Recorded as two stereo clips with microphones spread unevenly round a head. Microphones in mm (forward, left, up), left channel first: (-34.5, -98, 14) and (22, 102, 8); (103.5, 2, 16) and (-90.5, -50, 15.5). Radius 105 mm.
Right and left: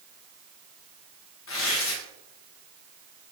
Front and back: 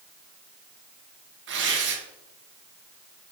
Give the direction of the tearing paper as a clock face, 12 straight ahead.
4 o'clock.